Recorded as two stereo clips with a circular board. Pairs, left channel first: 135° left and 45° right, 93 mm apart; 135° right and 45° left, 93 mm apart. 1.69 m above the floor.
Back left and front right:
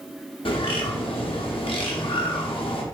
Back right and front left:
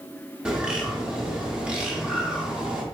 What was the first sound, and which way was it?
A bird, 125° left.